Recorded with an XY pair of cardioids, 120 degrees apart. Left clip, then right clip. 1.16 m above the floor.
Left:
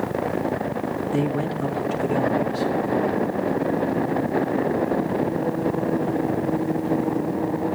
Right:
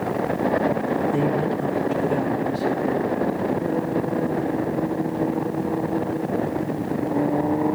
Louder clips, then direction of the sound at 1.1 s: Right 2 dB; 30° left.